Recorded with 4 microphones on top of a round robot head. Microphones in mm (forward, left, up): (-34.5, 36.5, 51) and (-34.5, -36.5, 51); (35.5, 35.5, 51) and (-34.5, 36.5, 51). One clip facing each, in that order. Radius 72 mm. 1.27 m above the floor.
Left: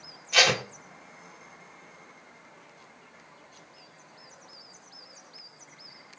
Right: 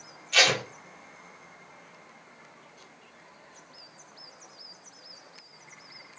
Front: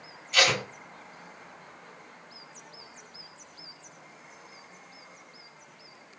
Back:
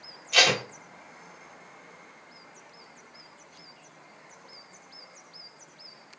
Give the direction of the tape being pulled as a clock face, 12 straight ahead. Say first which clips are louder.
Left 1 dB, back 1 dB; 6 o'clock.